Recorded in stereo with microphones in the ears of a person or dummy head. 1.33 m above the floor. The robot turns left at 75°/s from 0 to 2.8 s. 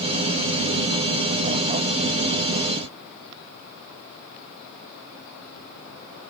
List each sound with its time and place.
Only background noise.